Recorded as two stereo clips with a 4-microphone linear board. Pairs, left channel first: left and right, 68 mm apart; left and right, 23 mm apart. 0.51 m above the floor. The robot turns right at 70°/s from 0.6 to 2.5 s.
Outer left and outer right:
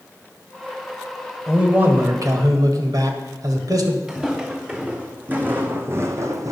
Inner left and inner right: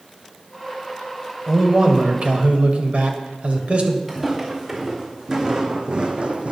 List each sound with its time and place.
1.5 s a man speaking: 170° right, 1.7 m; by 4.0 s 95° right, 1.7 m
4.1 s footsteps: 10° right (ahead or behind), 2.5 m; by 6.5 s 55° right (ahead or behind), 1.2 m